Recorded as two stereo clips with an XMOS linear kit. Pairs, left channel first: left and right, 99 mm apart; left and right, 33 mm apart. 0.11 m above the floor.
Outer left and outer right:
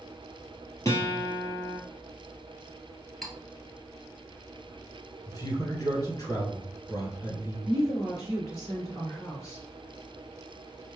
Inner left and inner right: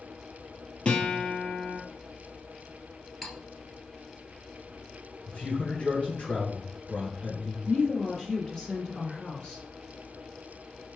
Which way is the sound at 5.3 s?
40° left (ahead or behind).